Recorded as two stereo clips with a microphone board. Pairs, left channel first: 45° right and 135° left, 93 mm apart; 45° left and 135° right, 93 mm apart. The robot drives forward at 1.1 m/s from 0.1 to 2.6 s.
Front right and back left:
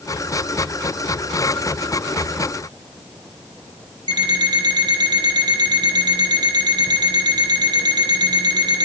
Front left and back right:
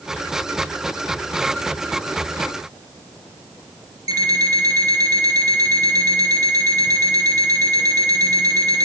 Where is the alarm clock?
175° left, 4.5 m.